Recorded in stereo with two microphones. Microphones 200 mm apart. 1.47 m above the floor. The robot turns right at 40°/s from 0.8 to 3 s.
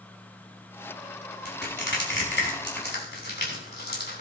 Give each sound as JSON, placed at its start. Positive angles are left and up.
{"t": 1.4, "sound": "crushing", "side_deg": 55, "distance_m": 3.5}